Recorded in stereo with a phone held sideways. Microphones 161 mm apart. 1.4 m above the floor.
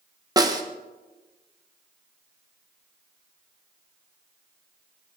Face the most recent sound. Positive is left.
turn(degrees=-25)  # may be behind; listen again after turning